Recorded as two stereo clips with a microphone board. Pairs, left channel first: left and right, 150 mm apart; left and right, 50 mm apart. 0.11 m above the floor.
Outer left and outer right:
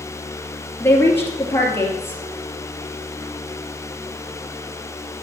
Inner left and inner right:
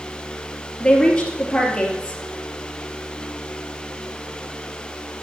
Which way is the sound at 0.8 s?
15° left (ahead or behind).